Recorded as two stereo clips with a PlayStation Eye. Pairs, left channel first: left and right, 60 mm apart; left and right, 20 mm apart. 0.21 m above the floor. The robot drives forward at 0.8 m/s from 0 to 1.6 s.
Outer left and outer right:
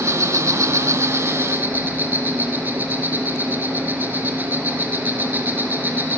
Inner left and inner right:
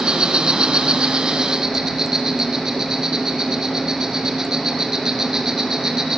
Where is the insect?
55° right (ahead or behind), 0.8 m; by 6.2 s 35° right (ahead or behind), 1.1 m.